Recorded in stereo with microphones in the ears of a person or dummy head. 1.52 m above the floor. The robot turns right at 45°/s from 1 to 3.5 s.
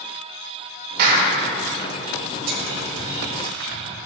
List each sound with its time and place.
1.0 s a clap: 50° right (ahead or behind), 2.5 m; by 1.3 s 35° right (ahead or behind), 2.5 m
2.5 s whispering: 80° right, 4 m; by 3.9 s 50° right (ahead or behind), 4 m